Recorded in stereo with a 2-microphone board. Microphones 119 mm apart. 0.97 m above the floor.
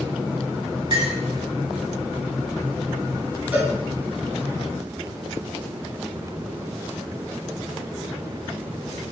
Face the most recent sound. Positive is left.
turn(degrees=-15)  # may be behind; listen again after turning